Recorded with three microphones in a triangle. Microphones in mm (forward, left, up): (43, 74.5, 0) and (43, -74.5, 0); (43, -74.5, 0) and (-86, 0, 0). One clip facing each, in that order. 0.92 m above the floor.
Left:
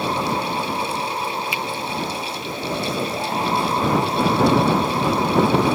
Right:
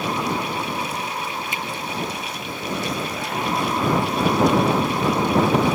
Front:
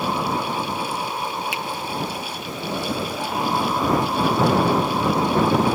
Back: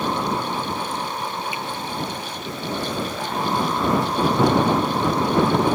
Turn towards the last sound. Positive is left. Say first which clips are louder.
# left 2 dB, front 1 dB
turn(degrees=-45)